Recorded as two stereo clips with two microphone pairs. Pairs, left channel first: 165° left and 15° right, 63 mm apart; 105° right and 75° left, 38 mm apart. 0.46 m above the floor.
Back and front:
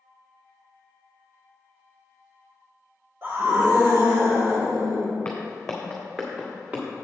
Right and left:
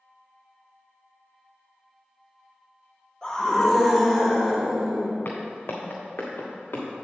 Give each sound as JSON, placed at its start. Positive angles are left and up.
{"t": 3.2, "sound": "a scream", "azimuth_deg": -50, "distance_m": 1.5}
{"t": 5.2, "sound": "footsteps", "azimuth_deg": -130, "distance_m": 1.7}